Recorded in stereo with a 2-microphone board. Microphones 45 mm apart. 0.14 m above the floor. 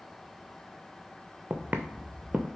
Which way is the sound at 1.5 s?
25° right (ahead or behind).